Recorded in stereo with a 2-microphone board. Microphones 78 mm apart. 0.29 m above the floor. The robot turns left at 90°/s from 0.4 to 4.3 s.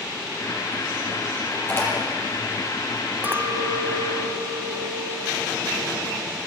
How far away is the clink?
About 1.3 m.